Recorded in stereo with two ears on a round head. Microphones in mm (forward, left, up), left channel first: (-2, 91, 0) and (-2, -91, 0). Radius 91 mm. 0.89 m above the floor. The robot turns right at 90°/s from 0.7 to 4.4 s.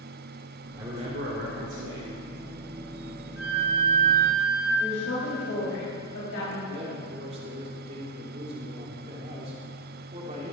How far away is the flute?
About 2 m.